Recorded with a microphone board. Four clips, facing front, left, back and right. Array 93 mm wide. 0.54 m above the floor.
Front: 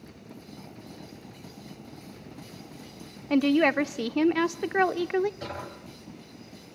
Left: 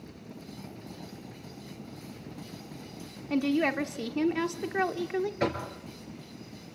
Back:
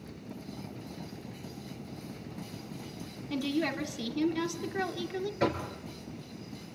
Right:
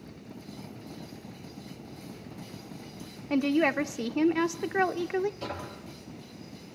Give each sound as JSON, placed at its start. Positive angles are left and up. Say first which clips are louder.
{"t": 3.3, "sound": "a woman speaking", "louder": "right 2 dB, front 10 dB", "azimuth_deg": -15, "distance_m": 1.0}
{"t": 5.4, "sound": "knocking", "louder": "left 7 dB, back 7 dB", "azimuth_deg": 120, "distance_m": 6.5}